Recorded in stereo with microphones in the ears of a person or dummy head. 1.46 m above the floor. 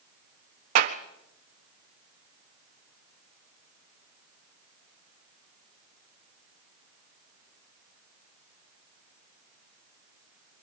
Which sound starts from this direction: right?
A clap, at 0.8 s.